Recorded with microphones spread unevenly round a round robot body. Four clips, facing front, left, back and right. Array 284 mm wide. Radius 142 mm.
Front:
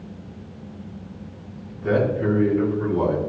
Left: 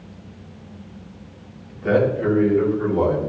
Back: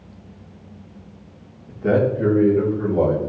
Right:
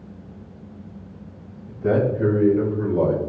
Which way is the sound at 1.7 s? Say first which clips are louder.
Left 2 dB, back 3 dB; 135° right.